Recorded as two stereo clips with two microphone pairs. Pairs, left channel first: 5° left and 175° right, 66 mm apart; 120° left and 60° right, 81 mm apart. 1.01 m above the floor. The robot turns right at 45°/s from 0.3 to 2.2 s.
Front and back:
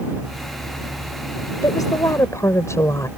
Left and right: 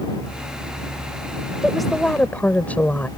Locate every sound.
1.6 s a woman speaking: 20° left; by 3.1 s 45° left